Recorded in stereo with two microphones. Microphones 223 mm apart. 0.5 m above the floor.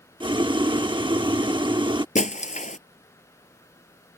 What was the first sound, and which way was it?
Boiling, 20° right (ahead or behind).